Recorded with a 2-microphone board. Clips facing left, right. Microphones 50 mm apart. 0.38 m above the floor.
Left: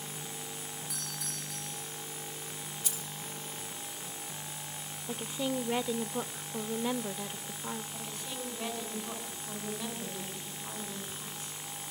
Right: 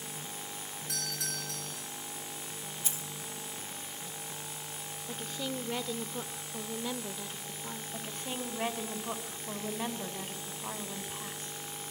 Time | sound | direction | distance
0.9 | a doorbell | 75° right (ahead or behind) | 8.5 m
2.8 | keys jangling | 30° right (ahead or behind) | 1.3 m
5.1 | a woman speaking | 20° left (ahead or behind) | 0.8 m
7.9 | a woman speaking | 40° right (ahead or behind) | 3.5 m